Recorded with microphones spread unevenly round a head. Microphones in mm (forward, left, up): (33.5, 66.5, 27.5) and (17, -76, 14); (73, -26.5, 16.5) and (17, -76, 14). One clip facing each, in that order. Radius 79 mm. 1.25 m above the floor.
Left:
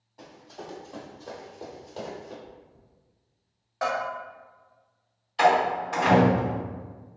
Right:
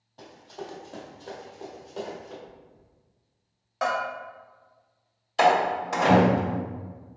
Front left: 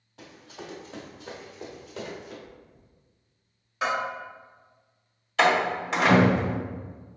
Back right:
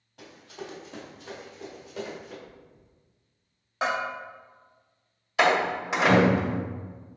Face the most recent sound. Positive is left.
turn(degrees=-60)